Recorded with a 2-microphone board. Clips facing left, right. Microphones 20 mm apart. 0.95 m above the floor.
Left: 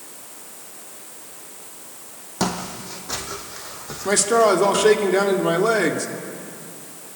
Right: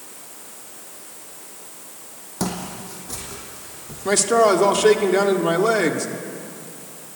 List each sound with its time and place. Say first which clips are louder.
2.4 s footsteps: left 2 dB; 30° left (ahead or behind), 2.5 m; by 5.0 s 70° left (ahead or behind), 3 m
4.0 s a man speaking: even; 5° right (ahead or behind), 1.7 m